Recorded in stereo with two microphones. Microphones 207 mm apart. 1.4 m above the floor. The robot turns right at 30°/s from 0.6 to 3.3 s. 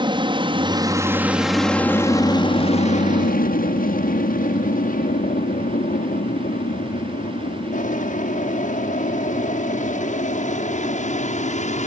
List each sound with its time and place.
0.0 s an aircraft: 25° right (ahead or behind); by 11.9 s 35° left (ahead or behind)